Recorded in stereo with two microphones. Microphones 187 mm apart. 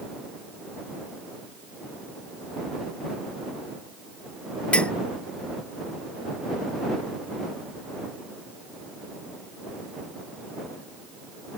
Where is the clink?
5° left (ahead or behind).